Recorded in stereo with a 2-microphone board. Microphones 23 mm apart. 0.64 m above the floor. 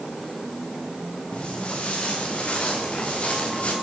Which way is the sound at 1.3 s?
50° left (ahead or behind).